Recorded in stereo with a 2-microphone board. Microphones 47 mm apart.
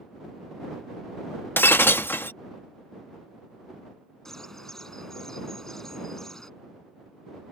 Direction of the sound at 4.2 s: 10° left (ahead or behind).